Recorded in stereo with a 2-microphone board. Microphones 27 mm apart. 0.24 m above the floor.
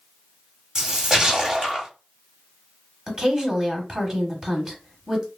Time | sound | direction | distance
0.8 | a splash | 25° right (ahead or behind) | 1.1 m
3.1 | a woman speaking | 25° right (ahead or behind) | 1.2 m